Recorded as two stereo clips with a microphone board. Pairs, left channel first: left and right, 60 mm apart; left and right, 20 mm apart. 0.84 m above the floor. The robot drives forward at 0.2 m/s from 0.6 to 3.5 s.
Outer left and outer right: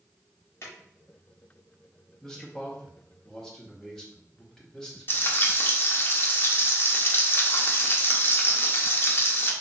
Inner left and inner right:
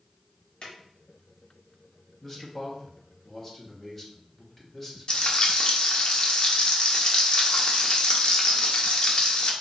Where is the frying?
40° left (ahead or behind), 0.5 m.